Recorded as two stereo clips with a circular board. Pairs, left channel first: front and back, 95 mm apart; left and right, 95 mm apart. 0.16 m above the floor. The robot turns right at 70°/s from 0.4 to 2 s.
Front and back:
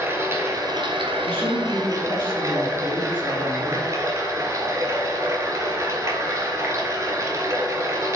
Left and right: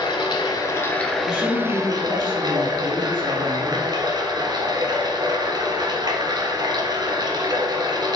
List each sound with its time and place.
0.0 s running water: 125° left, 0.8 m; by 8.2 s 125° right, 0.8 m
1.2 s a woman speaking: 50° left, 1.4 m; by 3.9 s 105° left, 1.4 m